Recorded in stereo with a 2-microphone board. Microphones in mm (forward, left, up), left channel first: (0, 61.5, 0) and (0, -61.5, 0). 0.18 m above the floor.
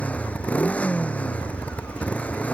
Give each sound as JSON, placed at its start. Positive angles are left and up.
{"t": 0.0, "sound": "a motorcycle", "side_deg": 10}